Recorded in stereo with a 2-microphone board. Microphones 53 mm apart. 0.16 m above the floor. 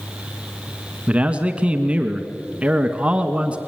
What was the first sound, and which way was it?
A man speaking, 20° right (ahead or behind).